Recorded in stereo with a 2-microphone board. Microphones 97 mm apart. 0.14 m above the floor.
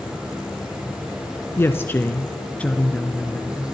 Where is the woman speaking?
25° left (ahead or behind), 1.2 m; by 3.6 s 5° left (ahead or behind), 2 m.